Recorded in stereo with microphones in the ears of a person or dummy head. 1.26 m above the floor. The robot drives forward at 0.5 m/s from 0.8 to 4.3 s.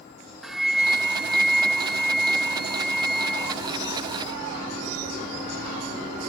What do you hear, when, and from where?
0.4 s a flute: 5° right (ahead or behind); by 3.6 s centre (ahead or behind)